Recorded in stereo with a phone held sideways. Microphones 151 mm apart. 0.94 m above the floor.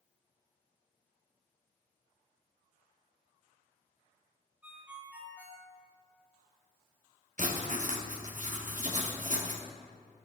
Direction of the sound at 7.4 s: 55° right (ahead or behind).